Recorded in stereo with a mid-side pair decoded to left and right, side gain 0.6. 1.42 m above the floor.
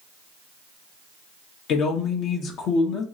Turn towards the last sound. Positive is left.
turn(degrees=60)